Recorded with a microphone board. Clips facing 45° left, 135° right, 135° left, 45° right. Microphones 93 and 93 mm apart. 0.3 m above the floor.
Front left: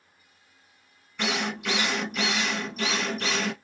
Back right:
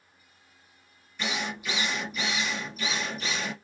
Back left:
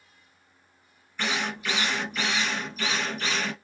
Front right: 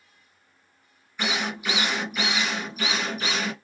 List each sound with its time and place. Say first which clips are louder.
1.2 s a drill: front left 4 dB, front right 1 dB; 35° left, 1.1 m